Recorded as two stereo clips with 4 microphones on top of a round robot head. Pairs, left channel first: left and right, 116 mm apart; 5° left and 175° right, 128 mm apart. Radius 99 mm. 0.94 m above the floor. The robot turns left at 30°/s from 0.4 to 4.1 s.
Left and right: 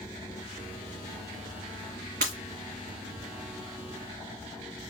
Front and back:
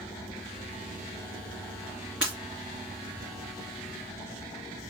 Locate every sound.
2.2 s breaking glass: 95° right, 1.9 m; by 2.4 s 100° right, 1.9 m